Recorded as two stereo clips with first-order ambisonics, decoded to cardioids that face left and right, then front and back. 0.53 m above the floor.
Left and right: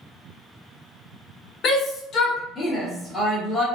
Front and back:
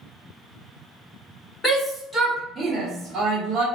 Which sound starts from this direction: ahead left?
A shout, at 1.6 s.